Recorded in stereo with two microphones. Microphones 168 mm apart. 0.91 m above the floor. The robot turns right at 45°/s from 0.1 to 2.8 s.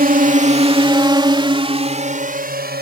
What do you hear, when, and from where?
0.0 s a drone: 60° right (ahead or behind); by 2.8 s 70° right (ahead or behind)